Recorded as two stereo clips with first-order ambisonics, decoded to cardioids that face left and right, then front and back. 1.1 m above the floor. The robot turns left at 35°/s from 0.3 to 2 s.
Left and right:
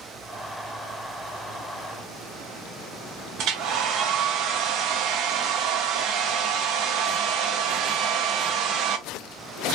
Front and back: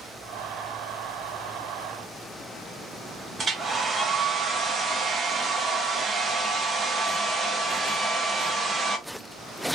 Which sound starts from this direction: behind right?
A hair dryer, at 3.4 s.